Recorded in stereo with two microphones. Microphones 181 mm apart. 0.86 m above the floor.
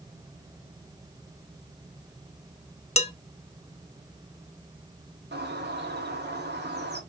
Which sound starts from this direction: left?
Dishes clattering, at 3.0 s.